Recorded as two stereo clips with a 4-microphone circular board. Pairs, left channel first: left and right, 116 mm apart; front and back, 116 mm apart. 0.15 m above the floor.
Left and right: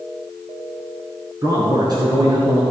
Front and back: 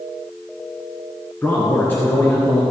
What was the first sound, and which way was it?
A man speaking, 60° right.